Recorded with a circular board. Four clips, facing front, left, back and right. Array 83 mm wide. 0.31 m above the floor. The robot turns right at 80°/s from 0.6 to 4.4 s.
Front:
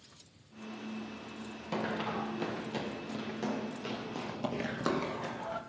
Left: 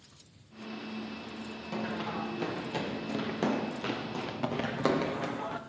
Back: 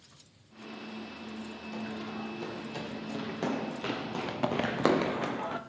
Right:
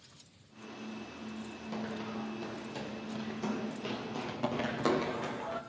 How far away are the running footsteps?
About 1.4 m.